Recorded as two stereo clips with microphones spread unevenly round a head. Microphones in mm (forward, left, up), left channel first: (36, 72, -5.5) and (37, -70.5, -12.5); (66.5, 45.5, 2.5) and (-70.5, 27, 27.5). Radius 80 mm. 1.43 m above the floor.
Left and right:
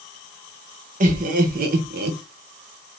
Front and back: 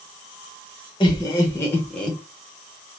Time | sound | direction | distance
1.0 | laughter | 60° right | 1.5 m